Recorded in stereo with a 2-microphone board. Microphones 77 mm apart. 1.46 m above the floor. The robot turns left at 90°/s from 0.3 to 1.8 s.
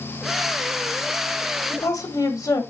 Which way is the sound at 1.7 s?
40° left (ahead or behind).